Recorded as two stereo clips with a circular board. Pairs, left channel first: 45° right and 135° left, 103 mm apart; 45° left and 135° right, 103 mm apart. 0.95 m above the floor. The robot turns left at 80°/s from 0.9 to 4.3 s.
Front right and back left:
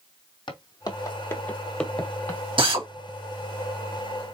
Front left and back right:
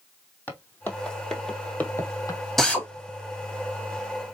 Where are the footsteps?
25° right, 1.5 m; by 2.4 s 10° left, 1.2 m.